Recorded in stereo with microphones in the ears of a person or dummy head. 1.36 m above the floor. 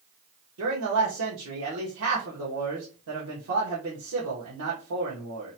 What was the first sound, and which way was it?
A man speaking, 85° right.